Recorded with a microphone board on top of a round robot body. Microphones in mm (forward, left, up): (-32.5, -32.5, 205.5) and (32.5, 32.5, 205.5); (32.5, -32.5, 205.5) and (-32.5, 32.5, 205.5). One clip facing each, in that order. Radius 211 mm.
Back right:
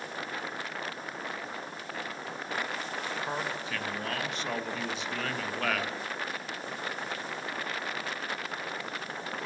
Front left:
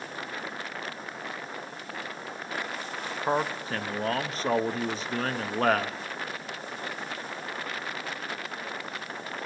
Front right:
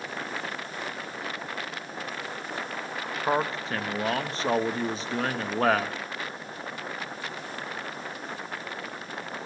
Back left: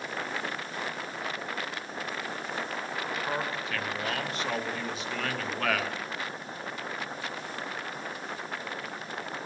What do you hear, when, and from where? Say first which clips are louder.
3.3 s a man speaking: front left 6 dB, front right 5 dB; 5° left, 0.6 m